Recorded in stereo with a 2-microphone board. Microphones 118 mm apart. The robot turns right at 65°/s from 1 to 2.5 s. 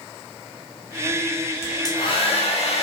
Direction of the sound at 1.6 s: 20° left.